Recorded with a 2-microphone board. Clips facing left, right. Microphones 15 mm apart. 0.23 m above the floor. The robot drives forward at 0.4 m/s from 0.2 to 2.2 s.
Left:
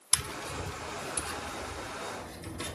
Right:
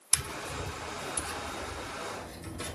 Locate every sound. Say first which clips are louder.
0.1 s tapping: even; 55° left (ahead or behind), 0.6 m; by 2.8 s 25° left (ahead or behind), 1.1 m